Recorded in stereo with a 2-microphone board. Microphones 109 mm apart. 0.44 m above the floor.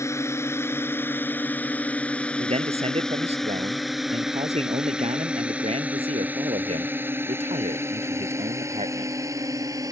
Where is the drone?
25° left (ahead or behind); by 9.9 s 30° right (ahead or behind).